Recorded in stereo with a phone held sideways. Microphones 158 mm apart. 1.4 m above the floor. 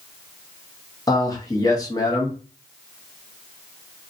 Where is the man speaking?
20° left (ahead or behind), 0.9 m.